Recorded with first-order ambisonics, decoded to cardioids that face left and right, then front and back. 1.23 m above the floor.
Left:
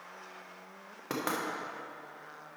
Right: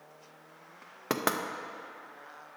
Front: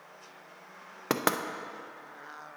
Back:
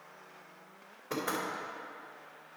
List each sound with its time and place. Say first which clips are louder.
1.1 s knocking: right 4 dB, front 6 dB; 25° right, 0.6 m